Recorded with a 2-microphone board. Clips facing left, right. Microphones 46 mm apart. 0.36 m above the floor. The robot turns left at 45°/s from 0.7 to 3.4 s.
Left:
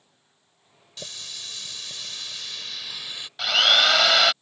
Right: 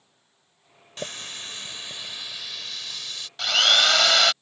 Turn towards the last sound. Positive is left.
turn(degrees=5)  # may be behind; listen again after turning